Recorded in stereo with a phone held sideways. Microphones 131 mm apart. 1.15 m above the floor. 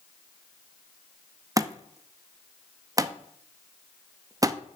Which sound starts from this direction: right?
A thud, at 1.6 s.